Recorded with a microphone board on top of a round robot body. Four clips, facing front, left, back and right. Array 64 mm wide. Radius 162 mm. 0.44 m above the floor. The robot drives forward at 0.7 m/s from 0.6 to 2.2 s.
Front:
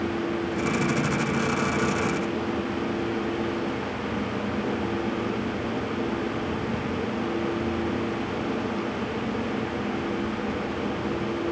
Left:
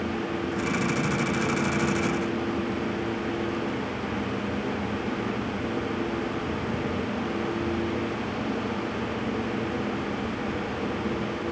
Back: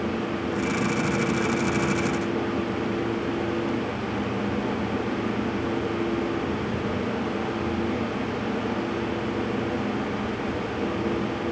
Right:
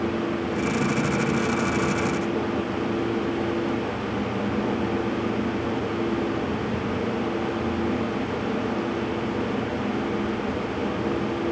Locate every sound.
Only background noise.